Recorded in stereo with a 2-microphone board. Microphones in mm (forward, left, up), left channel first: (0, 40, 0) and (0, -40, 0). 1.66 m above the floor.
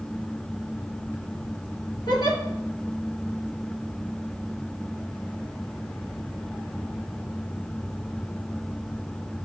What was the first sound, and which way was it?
A giggle, 70° left (ahead or behind).